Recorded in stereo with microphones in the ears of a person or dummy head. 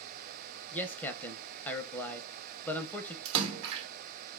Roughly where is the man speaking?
Centre.